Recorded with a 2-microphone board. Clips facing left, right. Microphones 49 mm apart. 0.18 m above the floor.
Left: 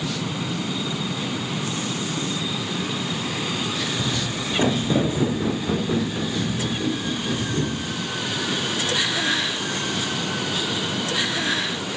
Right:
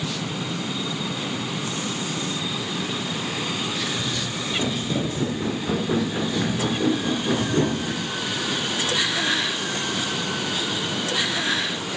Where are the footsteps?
55° left (ahead or behind), 1.2 m; by 8.1 s 50° right (ahead or behind), 2 m.